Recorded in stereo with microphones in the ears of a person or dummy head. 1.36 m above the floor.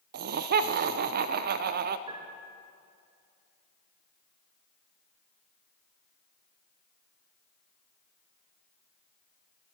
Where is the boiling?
I don't hear boiling.